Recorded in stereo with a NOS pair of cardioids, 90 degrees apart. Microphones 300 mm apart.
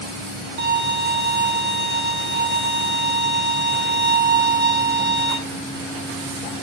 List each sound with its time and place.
0.6 s a violin: 45° right, 1.5 m